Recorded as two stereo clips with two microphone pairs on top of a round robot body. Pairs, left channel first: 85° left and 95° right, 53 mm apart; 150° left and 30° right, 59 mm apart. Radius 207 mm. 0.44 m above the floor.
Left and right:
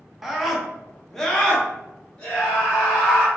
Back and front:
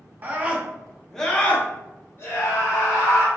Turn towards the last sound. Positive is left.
turn(degrees=160)